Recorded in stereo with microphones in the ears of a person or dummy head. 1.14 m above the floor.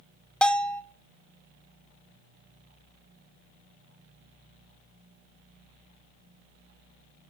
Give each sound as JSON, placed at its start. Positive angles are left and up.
{"t": 0.4, "sound": "a bell", "side_deg": 5, "distance_m": 0.6}